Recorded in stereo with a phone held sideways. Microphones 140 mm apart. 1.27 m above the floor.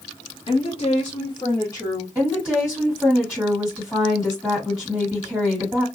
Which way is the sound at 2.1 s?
5° left (ahead or behind).